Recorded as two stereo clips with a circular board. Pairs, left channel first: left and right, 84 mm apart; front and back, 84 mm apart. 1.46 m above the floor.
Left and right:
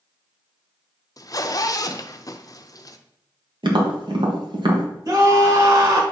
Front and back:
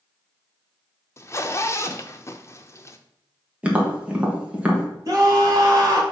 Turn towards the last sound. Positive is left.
turn(degrees=-135)